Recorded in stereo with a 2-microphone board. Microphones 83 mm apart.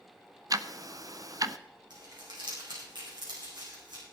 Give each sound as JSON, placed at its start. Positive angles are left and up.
{"t": 0.5, "sound": "ticking", "side_deg": -50, "distance_m": 0.6}
{"t": 1.9, "sound": "crumpling", "side_deg": -70, "distance_m": 6.0}